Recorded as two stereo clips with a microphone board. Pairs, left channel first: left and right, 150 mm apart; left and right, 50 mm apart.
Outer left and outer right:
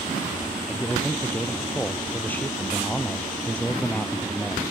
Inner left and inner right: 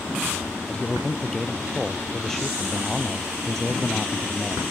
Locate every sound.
0.7 s a man speaking: 15° left (ahead or behind); by 4.6 s 5° left (ahead or behind)